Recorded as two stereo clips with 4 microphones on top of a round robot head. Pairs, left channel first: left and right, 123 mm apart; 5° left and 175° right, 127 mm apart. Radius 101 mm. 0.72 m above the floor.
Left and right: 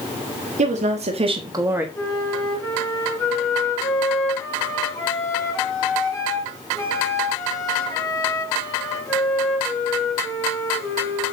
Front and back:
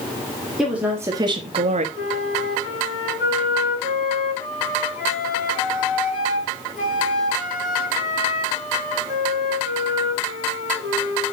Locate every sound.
0.6 s a woman speaking: 85° right, 1.8 m; by 1.9 s 170° right, 1.4 m
1.9 s a flute: 25° left, 4 m